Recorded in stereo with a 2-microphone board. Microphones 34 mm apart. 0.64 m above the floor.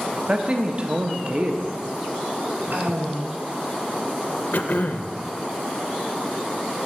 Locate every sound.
0.1 s a man speaking: 35° right (ahead or behind), 0.8 m
2.7 s a woman speaking: 65° right (ahead or behind), 3 m
4.5 s throat clearing: 65° left (ahead or behind), 0.5 m